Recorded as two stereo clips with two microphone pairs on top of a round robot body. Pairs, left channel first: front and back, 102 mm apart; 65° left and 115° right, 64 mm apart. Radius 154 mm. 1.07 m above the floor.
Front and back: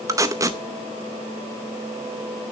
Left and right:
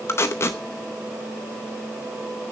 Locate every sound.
0.1 s tape being pulled: 120° left, 0.7 m